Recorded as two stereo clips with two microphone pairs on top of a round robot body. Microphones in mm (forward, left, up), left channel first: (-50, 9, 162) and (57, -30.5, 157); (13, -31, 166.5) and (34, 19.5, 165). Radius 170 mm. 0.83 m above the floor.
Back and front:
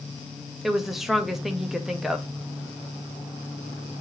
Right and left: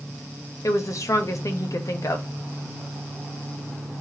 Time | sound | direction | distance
0.6 | a woman speaking | 105° right | 1.2 m